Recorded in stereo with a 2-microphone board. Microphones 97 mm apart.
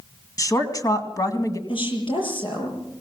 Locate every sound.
0.4 s a woman speaking: 40° left (ahead or behind), 2 m
1.7 s a woman speaking: 60° left (ahead or behind), 7 m